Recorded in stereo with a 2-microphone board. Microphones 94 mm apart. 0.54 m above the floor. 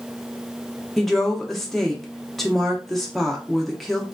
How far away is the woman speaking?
About 0.7 m.